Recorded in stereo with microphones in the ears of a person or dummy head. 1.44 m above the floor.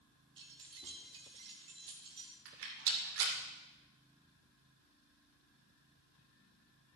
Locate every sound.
0.4 s keys jangling: 25° right (ahead or behind), 1.9 m
2.5 s a rattle: 75° right (ahead or behind), 3 m